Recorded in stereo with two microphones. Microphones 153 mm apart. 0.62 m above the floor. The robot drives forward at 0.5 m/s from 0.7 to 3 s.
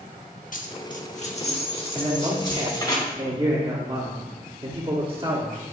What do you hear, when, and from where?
0.5 s a dropped coin: 60° left (ahead or behind), 0.8 m; by 3.0 s 25° left (ahead or behind), 1.6 m
1.9 s a man speaking: 35° right (ahead or behind), 1.4 m